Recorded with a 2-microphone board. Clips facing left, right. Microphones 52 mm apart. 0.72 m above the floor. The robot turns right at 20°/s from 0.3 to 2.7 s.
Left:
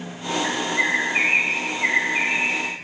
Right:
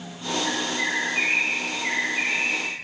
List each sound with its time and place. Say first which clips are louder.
0.4 s a bird: left 5 dB; 50° left, 7 m; by 2.7 s 95° left, 7 m